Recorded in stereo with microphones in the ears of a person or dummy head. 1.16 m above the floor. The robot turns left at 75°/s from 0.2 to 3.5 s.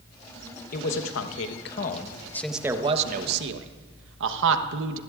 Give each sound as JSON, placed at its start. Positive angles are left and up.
{"t": 0.7, "sound": "a man speaking", "side_deg": 45, "distance_m": 1.1}